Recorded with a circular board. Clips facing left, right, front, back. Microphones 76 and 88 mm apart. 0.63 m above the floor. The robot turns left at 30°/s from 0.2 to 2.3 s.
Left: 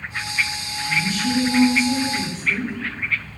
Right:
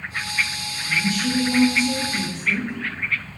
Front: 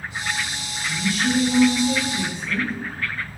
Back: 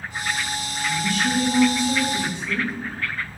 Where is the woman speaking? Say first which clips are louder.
Even, even; 60° right, 0.8 m; by 2.7 s 105° right, 0.8 m.